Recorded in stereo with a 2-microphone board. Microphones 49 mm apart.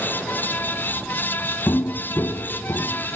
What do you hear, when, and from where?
1.7 s footsteps: 75° left (ahead or behind), 0.8 m; by 3.0 s 70° left (ahead or behind), 1.8 m